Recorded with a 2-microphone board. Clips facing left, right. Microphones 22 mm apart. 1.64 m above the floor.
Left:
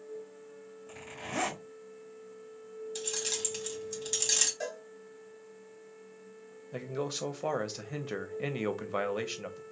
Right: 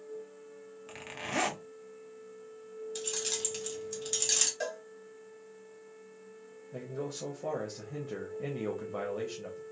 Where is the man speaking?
65° left (ahead or behind), 0.7 m.